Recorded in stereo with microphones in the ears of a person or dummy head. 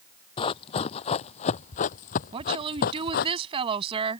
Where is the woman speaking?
30° right (ahead or behind).